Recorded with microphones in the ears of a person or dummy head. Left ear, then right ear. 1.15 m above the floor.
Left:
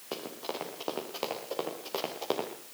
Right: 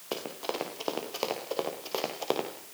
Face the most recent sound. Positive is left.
turn(degrees=0)  # may be behind; listen again after turning